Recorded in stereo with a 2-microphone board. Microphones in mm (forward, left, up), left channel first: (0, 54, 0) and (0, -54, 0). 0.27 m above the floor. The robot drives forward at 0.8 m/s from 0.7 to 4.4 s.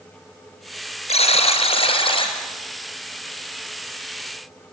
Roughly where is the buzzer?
Left.